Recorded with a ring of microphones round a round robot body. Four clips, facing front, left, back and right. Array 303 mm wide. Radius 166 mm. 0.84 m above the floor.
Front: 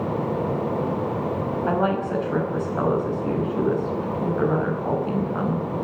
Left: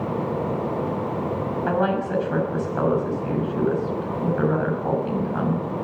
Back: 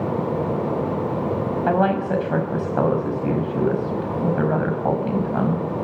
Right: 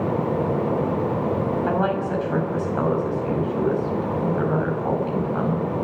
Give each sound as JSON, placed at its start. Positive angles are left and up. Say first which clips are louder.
{"t": 1.7, "sound": "a woman speaking", "louder": "even, back 4 dB", "azimuth_deg": 175, "distance_m": 5.5}